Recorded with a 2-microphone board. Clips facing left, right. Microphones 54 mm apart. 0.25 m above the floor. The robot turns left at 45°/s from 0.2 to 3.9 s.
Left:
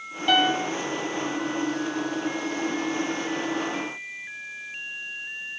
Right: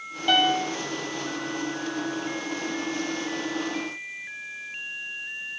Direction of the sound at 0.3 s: 5° left (ahead or behind).